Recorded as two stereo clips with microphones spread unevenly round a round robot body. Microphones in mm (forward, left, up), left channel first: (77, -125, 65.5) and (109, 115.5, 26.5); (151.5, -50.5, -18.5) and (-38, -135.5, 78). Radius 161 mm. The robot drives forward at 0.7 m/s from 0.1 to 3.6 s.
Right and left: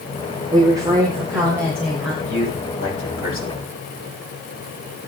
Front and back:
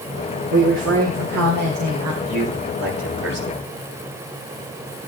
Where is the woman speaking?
145° left, 1.6 m; by 2.1 s 160° left, 2.5 m.